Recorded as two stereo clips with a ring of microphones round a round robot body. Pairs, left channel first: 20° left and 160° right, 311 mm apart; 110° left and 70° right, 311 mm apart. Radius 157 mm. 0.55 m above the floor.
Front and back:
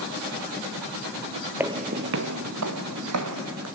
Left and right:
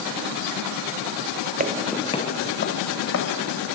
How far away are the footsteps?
About 0.5 m.